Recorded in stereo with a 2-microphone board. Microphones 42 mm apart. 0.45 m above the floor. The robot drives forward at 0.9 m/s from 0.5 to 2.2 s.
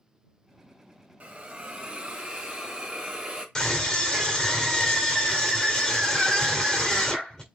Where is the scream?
15° left (ahead or behind), 1.9 m.